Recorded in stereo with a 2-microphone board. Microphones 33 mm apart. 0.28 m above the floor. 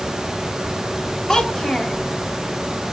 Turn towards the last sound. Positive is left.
turn(degrees=15)  # may be behind; listen again after turning